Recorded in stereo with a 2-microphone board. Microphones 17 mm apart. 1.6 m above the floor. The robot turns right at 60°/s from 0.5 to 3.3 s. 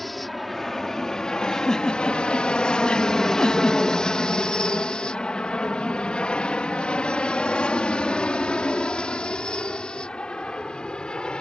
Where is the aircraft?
5° left (ahead or behind); by 11.4 s 55° left (ahead or behind).